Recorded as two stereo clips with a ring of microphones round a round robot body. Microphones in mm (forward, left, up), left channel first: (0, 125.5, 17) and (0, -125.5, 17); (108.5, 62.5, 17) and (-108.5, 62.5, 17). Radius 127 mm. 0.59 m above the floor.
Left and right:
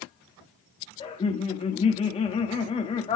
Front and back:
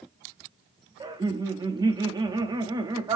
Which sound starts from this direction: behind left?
Laughter, at 1.0 s.